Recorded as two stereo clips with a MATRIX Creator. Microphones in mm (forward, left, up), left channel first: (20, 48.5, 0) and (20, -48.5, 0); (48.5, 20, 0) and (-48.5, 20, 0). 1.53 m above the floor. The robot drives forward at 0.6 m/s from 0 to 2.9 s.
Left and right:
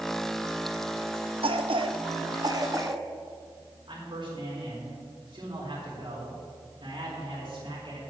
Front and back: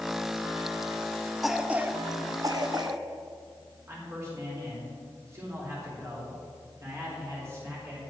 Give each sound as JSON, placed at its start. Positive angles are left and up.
{"t": 1.4, "sound": "a cough", "azimuth_deg": -90, "distance_m": 0.7}
{"t": 3.9, "sound": "a man speaking", "azimuth_deg": -120, "distance_m": 4.0}